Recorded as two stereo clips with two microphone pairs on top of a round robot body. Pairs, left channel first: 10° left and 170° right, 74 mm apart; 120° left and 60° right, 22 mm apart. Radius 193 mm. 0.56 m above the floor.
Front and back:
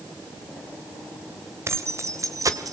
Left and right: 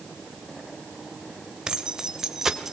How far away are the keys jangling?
About 2.5 m.